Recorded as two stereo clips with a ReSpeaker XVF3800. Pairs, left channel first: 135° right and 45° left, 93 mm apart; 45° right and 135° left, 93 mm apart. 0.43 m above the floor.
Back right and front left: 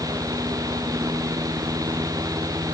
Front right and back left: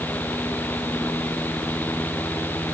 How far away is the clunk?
No clunk in this recording.